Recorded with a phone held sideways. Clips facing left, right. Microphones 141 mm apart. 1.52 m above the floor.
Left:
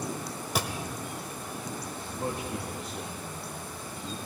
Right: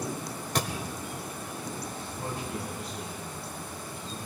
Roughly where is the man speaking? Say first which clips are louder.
Left 3 dB; left.